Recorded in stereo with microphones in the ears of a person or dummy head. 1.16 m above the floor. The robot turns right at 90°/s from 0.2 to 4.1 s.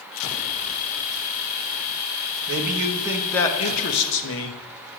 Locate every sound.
2.5 s a man speaking: 70° right, 1.3 m; by 4.6 s 80° left, 1.3 m